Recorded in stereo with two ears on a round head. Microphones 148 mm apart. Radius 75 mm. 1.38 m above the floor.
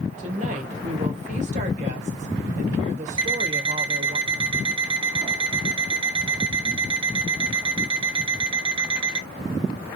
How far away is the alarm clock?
About 0.8 m.